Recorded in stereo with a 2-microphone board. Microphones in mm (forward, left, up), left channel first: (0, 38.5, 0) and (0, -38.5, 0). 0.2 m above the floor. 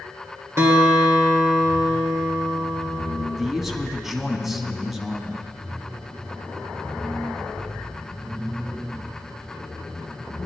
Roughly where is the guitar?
Right.